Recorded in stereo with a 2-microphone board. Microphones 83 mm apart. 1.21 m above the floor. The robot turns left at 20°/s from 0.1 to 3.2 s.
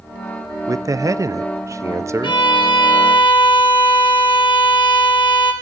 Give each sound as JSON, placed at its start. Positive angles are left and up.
{"t": 0.7, "sound": "a man speaking", "azimuth_deg": -90, "distance_m": 0.6}
{"t": 2.2, "sound": "a violin", "side_deg": 75, "distance_m": 3.5}